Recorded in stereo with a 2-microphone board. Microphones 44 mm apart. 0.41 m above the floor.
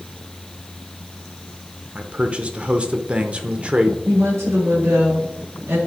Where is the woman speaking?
70° right (ahead or behind), 5 m.